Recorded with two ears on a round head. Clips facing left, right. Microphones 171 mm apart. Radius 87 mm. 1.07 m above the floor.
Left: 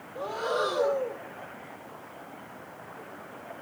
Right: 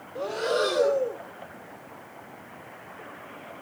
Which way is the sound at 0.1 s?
25° right (ahead or behind).